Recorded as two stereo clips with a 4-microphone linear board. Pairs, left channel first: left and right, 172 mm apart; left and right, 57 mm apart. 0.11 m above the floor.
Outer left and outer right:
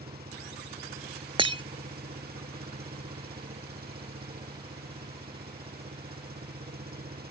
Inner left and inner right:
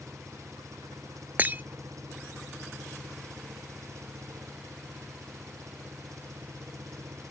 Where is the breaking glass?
30° right (ahead or behind).